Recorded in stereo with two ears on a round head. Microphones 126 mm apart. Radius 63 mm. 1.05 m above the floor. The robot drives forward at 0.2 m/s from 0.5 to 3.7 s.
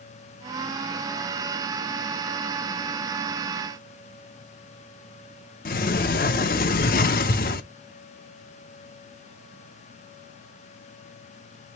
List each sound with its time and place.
5.7 s a sliding door: 65° left (ahead or behind), 0.5 m